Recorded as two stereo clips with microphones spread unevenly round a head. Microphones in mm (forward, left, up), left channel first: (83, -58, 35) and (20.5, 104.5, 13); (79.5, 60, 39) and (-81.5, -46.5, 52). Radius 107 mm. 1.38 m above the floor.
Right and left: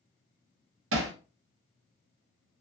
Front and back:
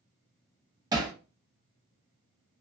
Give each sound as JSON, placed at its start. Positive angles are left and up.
{"t": 0.9, "sound": "hammering", "azimuth_deg": 145, "distance_m": 0.5}